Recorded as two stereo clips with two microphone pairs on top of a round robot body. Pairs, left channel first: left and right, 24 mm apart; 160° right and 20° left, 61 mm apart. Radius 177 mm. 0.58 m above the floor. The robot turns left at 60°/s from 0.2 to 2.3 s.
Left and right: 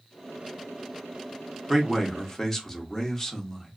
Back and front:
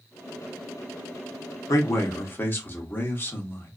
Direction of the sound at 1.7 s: 170° right.